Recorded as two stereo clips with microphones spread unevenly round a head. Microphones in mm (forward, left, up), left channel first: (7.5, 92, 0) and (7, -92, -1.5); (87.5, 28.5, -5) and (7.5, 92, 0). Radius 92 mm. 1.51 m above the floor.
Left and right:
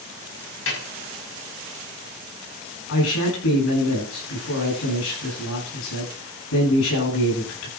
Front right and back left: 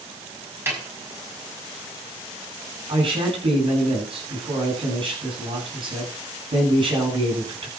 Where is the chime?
No chime in this recording.